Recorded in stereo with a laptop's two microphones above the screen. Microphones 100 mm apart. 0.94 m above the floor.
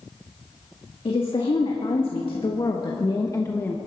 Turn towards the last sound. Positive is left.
turn(degrees=25)  # may be behind; listen again after turning